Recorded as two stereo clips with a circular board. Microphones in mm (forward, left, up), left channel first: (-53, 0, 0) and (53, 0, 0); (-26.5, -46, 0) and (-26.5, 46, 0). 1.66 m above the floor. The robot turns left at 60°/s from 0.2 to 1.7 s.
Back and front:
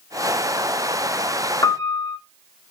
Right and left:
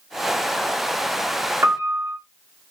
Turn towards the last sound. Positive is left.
turn(degrees=135)